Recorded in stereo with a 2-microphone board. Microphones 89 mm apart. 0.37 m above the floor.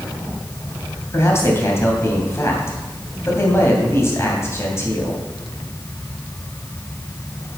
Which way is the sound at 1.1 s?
30° left (ahead or behind).